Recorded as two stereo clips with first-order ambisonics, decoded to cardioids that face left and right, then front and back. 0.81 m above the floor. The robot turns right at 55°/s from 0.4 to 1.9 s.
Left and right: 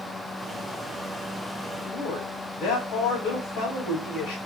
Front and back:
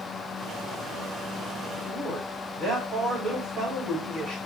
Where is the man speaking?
120° left, 4 m; by 4.4 s 125° left, 4 m.